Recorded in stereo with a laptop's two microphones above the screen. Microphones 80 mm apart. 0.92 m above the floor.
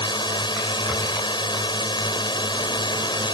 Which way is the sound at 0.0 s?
75° left (ahead or behind).